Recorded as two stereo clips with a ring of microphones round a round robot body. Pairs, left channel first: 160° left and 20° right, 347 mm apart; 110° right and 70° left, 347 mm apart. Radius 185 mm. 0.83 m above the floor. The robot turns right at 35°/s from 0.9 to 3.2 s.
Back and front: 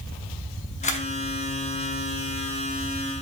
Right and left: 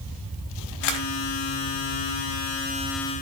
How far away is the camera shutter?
About 0.8 m.